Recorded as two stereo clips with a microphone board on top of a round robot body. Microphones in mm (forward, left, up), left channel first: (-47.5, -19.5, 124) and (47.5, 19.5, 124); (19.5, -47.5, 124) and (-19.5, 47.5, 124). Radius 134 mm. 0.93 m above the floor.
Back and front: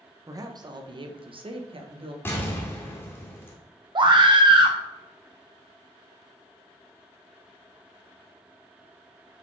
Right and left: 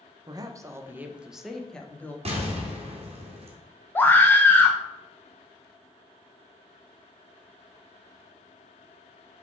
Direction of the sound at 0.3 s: 70° left.